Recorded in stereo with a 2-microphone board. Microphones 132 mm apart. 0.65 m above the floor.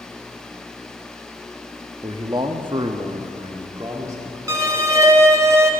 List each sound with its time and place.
2.0 s a man speaking: 30° right (ahead or behind), 0.7 m; by 4.4 s 20° right (ahead or behind), 1.5 m
4.5 s a violin: 25° right (ahead or behind), 0.7 m